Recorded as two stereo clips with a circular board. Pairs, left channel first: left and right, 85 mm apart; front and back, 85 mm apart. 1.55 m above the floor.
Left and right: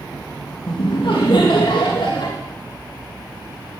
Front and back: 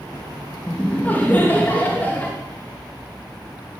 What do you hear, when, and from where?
0.7 s laughter: 70° left, 2.5 m